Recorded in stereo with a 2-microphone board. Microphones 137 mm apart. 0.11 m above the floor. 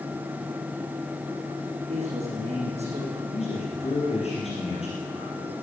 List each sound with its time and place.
1.9 s a man speaking: 50° right (ahead or behind), 7 m
3.3 s a man speaking: 50° left (ahead or behind), 3.5 m